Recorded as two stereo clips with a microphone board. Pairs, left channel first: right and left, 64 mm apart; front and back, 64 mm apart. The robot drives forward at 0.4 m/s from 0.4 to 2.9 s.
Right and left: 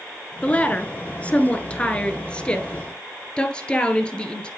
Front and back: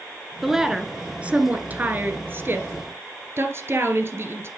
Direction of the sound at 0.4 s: 105° right.